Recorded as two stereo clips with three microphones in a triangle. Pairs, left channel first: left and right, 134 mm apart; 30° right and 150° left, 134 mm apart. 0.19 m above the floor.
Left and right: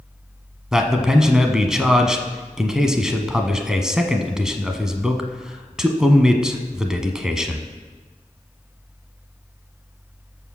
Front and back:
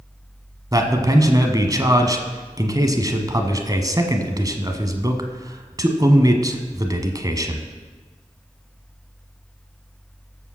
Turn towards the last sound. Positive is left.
turn(degrees=-170)